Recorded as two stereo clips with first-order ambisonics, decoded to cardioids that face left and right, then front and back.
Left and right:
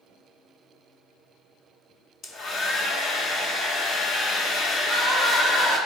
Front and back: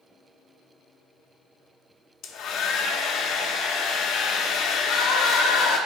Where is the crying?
10° left, 2 m.